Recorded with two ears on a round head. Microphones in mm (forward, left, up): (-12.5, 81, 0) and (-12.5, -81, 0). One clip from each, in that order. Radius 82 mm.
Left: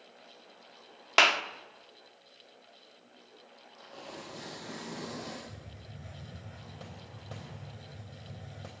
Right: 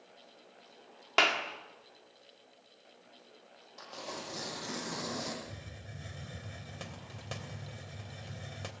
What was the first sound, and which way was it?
A clap, 35° left (ahead or behind).